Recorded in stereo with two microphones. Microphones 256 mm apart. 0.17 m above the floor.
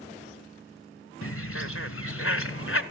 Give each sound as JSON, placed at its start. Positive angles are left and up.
{"t": 1.2, "sound": "a bird", "side_deg": 60, "distance_m": 0.8}